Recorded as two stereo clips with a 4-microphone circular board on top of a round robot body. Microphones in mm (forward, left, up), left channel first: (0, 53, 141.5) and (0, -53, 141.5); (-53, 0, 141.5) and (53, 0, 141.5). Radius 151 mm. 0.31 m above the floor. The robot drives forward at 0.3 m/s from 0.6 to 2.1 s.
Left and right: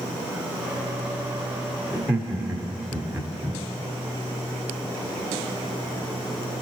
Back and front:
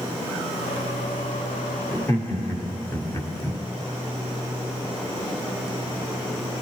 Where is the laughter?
135° right, 1.2 m.